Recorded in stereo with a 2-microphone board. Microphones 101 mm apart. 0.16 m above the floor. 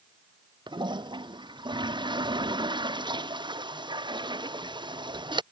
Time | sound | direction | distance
0.7 | a toilet flushing | 50° right (ahead or behind) | ?